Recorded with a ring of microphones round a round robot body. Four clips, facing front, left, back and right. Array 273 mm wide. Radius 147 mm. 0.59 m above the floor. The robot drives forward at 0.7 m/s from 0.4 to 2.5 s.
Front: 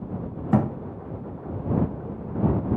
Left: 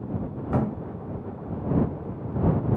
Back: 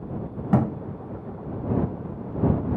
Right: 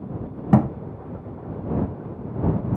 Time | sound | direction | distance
0.5 | a thud | 90° right | 0.7 m